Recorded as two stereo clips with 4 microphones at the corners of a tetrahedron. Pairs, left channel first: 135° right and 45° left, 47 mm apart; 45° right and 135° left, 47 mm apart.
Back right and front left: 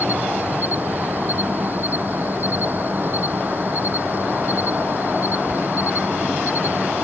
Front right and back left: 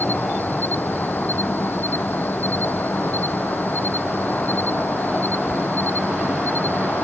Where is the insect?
Straight ahead.